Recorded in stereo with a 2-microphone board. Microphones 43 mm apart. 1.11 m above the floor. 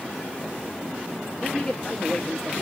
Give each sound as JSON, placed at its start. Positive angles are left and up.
{"t": 1.4, "sound": "a man speaking", "side_deg": 10, "distance_m": 1.2}